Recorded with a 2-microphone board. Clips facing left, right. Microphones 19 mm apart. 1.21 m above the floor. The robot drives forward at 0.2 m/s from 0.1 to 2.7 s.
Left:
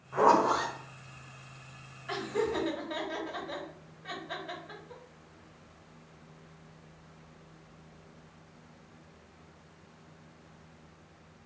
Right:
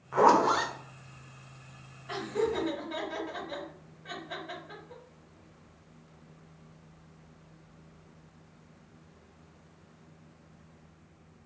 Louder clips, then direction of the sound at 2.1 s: Right 1 dB; 65° left (ahead or behind).